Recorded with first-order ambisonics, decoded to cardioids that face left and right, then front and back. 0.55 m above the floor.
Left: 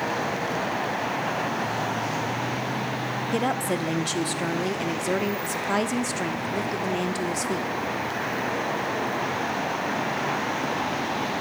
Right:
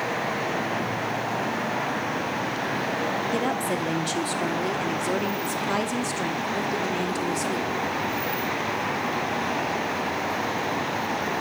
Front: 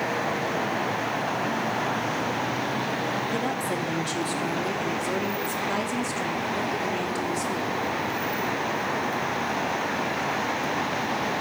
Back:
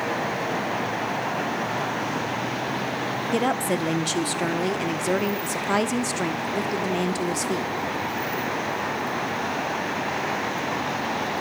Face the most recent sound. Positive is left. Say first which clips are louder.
# even, back 4 dB
turn(degrees=160)